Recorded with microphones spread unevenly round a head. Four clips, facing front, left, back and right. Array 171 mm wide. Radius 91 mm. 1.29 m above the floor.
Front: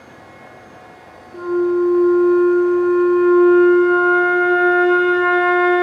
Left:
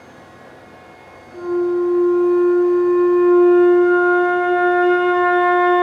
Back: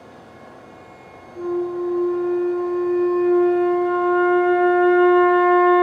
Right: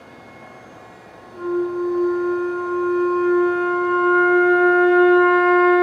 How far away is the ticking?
No ticking in this recording.